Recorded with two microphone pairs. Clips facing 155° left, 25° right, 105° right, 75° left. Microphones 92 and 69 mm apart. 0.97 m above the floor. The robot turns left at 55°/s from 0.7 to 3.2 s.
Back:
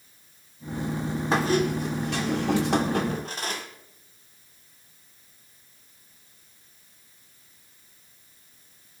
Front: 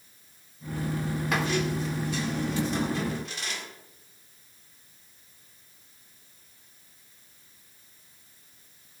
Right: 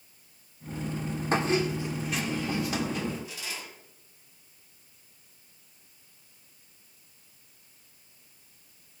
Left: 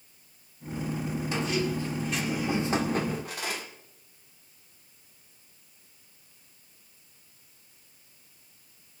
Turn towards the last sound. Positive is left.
turn(degrees=110)